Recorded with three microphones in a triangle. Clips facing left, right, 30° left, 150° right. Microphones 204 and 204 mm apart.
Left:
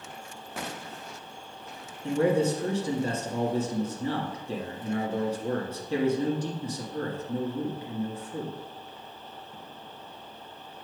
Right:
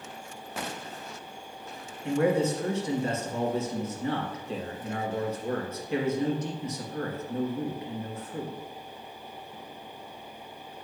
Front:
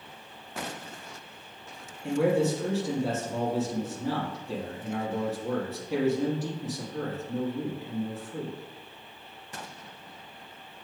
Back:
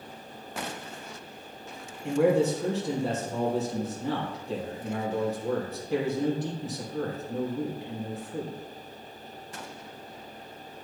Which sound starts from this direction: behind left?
A man speaking, at 2.0 s.